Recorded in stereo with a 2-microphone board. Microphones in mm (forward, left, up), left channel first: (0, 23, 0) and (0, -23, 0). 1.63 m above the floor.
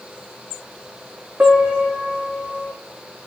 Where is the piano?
45° right (ahead or behind), 3 m.